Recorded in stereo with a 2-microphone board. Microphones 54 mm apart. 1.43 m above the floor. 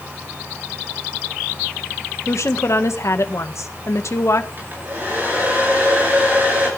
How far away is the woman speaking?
About 1.6 m.